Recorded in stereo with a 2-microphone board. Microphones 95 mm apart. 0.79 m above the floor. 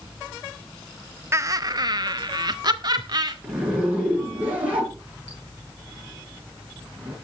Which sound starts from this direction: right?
Laughter, at 1.3 s.